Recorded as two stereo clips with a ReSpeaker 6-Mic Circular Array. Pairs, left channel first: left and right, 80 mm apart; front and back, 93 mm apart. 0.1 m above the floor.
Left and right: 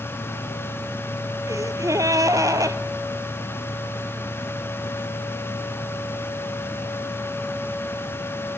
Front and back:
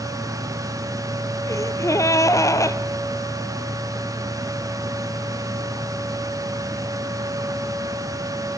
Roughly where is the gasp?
Ahead right.